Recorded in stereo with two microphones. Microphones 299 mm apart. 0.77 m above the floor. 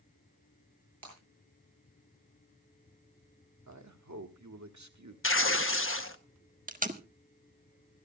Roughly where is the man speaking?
Right.